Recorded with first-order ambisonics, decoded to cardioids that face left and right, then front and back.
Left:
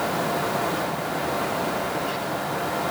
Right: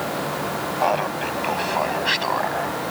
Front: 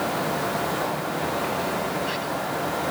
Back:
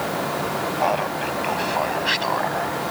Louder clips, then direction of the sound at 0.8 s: Right 5 dB, back 5 dB; 125° right.